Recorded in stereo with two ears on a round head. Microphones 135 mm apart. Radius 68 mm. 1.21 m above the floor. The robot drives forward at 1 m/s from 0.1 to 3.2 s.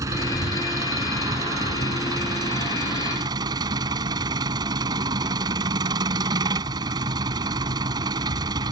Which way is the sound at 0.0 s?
20° right (ahead or behind).